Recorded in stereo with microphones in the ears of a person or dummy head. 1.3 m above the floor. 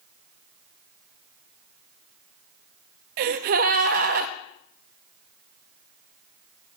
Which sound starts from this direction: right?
A gasp, at 3.2 s.